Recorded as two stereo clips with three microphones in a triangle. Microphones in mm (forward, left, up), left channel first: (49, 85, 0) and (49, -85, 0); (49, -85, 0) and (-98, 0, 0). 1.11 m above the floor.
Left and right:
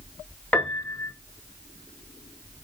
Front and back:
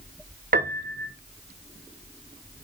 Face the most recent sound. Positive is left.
turn(degrees=170)